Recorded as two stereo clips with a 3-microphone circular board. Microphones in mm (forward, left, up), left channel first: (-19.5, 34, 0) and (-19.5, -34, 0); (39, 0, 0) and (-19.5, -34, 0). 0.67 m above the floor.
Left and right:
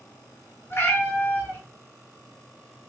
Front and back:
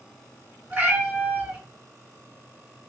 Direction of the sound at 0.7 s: 145° left.